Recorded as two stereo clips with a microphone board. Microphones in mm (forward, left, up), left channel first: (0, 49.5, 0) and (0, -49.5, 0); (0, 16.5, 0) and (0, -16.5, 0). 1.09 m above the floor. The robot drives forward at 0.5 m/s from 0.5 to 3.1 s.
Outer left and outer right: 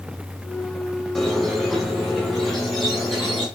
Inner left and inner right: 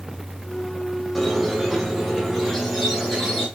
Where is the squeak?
5° left (ahead or behind), 1.3 m; by 3.5 s centre (ahead or behind), 2.5 m.